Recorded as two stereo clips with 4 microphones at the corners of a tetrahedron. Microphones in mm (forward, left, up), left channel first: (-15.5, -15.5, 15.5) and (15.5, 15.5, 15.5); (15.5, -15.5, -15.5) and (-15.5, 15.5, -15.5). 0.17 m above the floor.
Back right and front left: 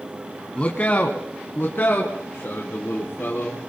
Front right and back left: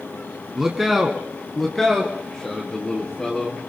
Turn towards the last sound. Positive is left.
turn(degrees=-115)